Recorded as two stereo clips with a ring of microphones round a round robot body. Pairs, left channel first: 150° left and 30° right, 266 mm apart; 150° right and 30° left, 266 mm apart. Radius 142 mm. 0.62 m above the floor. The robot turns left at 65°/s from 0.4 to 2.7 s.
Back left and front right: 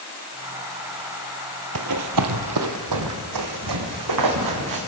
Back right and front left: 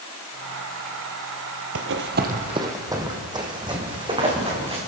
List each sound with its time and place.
1.8 s running footsteps: 5° right, 0.9 m; by 4.8 s 40° right, 3.5 m